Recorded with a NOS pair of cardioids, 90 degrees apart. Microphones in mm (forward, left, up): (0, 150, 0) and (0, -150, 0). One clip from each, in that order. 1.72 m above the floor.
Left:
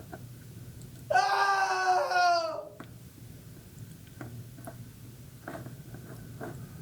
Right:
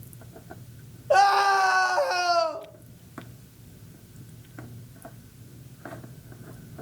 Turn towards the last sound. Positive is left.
turn(degrees=-25)